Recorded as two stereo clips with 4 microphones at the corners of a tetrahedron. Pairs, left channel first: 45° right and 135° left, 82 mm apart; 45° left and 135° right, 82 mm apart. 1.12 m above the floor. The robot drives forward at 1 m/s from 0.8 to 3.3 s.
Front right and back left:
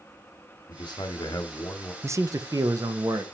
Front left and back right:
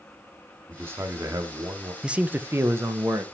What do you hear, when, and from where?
0.7 s a man speaking: 70° right, 2 m; by 1.9 s 105° right, 2.0 m
2.0 s a man speaking: 150° left, 0.6 m; by 3.2 s 175° left, 1.6 m